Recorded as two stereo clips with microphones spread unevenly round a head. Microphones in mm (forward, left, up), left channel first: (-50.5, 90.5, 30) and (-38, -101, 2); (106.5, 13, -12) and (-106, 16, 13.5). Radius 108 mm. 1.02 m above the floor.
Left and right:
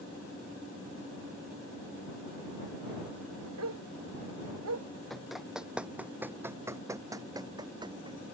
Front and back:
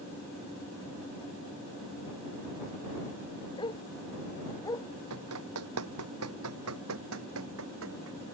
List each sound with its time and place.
3.6 s a dog barking: 70° right; by 4.9 s 75° right
5.1 s running footsteps: straight behind; by 8.2 s 155° right